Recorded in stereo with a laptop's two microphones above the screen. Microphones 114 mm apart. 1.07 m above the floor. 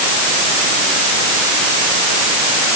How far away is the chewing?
No chewing in this recording.